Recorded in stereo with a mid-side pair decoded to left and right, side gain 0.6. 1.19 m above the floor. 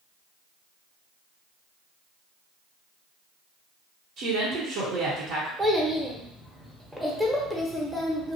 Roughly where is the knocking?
No knocking in this recording.